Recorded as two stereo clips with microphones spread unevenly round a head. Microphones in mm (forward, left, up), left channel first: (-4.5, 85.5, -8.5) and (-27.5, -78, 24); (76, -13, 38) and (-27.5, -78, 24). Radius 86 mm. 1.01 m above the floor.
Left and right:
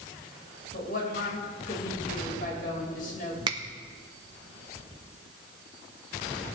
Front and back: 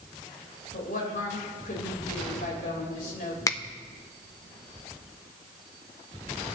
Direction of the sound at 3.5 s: 30° right.